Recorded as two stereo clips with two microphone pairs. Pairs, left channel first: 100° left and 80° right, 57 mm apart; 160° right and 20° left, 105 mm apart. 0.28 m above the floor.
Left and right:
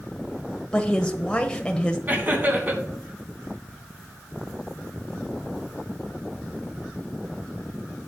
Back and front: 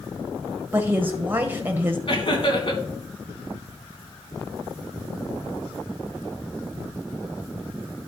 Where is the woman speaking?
45° left, 1.0 m.